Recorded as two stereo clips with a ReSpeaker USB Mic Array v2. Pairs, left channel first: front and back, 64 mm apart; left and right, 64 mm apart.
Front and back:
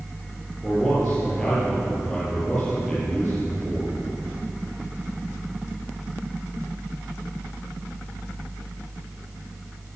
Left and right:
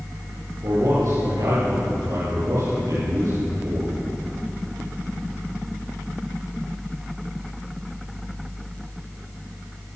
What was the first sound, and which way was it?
A man speaking, 85° right.